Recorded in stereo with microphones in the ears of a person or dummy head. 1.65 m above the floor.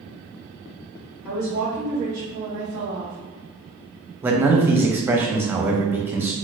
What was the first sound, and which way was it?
A woman speaking, 20° right (ahead or behind).